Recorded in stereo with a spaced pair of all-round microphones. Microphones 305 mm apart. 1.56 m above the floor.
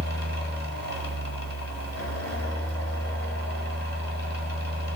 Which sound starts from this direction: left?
A fan, at 0.0 s.